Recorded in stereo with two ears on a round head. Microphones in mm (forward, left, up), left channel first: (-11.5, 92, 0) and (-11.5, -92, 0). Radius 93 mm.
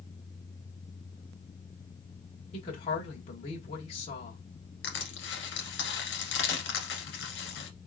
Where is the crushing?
60° left (ahead or behind), 1.5 m.